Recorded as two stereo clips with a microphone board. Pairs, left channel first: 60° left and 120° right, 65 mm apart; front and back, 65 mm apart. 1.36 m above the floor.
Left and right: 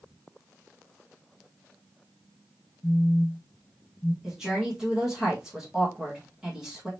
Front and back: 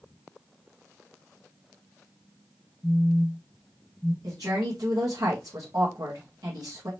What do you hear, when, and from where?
2.8 s a phone buzzing: 75° left, 0.5 m
4.2 s a woman speaking: 155° left, 1.7 m